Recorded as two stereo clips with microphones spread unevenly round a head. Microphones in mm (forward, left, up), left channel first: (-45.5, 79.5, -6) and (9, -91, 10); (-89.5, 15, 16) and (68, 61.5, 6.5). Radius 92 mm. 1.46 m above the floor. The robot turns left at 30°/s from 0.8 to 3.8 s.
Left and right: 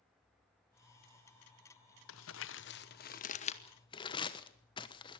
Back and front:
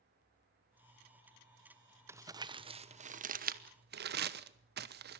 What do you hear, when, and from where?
2.1 s crumpling: 90° left, 1.0 m; by 5.2 s 40° left, 1.0 m